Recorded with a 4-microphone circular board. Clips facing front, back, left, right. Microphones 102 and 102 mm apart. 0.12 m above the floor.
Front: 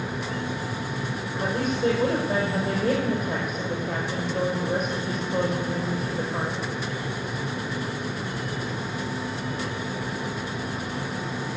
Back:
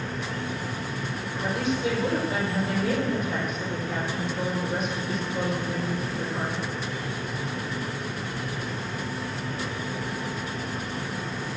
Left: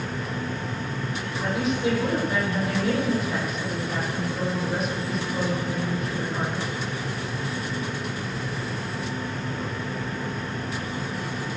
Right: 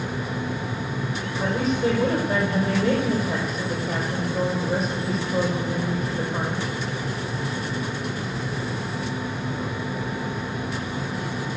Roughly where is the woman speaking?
Ahead right.